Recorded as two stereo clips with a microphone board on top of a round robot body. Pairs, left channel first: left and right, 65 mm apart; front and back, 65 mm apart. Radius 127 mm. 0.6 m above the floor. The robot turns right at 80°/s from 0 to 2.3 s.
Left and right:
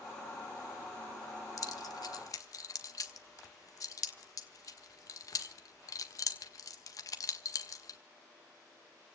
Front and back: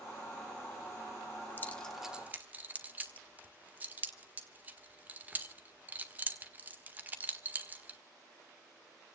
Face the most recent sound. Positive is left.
turn(degrees=120)